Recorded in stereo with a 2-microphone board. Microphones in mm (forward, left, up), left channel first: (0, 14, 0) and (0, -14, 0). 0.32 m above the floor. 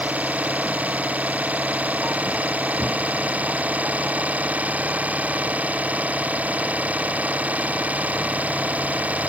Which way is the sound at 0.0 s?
65° right (ahead or behind).